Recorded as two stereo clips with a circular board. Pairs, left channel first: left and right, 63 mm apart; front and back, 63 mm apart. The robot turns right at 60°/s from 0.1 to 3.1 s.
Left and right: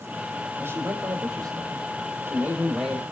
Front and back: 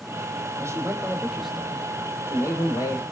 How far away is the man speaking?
About 4.5 m.